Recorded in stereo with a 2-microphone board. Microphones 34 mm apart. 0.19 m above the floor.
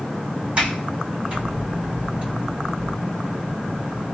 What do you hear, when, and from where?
0.6 s a sliding door: 30° right (ahead or behind), 2.0 m